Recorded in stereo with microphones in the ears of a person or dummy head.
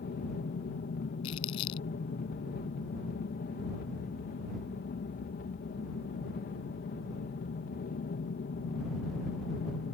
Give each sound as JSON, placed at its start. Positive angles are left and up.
{"t": 0.0, "sound": "an aircraft", "side_deg": 40}
{"t": 1.2, "sound": "crumpling", "side_deg": 45}